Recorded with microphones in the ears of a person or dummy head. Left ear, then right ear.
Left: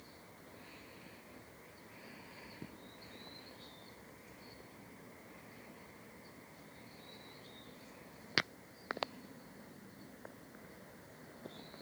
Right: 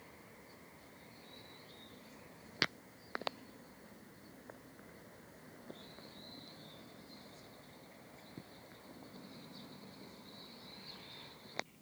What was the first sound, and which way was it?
Only background noise.